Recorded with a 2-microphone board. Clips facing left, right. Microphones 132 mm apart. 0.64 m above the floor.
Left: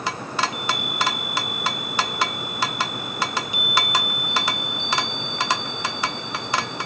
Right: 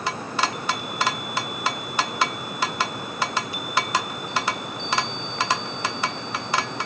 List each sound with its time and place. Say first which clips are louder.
0.4 s a chime: even; 20° left (ahead or behind), 4 m